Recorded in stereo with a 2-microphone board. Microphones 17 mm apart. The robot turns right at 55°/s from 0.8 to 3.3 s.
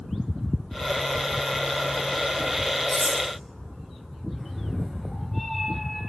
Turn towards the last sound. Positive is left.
turn(degrees=10)  # may be behind; listen again after turning